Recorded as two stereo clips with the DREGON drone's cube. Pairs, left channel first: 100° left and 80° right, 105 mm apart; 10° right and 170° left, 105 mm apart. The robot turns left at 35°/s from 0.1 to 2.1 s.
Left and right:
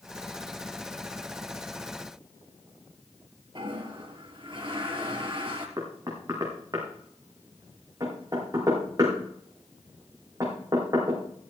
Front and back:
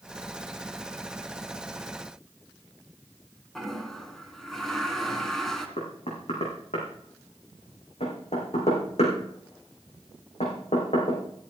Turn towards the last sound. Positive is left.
turn(degrees=-20)